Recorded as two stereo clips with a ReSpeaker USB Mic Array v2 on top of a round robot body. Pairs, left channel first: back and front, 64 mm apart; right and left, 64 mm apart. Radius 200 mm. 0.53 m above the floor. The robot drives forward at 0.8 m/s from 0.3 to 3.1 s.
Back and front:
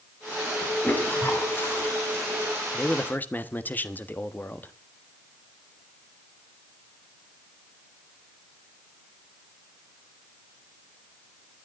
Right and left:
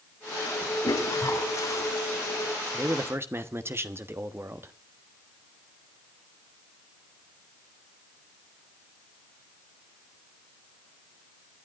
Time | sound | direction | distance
0.8 | a toilet flushing | 115° right | 3 m
2.7 | a man speaking | 115° left | 1.4 m